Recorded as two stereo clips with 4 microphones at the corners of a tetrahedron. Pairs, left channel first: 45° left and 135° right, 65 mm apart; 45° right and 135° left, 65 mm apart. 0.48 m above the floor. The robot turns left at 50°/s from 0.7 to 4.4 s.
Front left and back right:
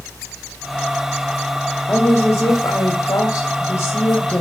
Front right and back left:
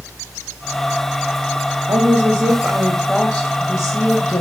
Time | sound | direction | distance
1.9 | a woman speaking | 115° left | 1.9 m